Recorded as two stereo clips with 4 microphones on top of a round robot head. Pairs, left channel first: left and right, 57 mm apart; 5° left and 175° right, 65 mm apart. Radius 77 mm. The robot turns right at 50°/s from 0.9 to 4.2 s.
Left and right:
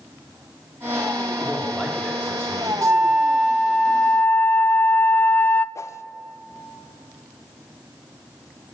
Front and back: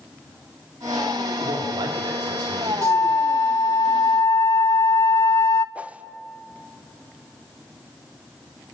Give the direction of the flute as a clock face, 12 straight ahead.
1 o'clock.